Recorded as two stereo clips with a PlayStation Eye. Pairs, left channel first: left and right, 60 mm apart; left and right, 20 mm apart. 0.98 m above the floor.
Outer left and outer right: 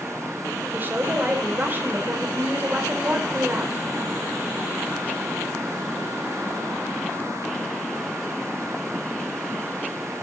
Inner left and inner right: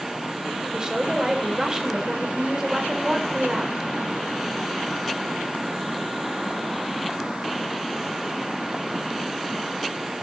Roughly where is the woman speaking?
Right.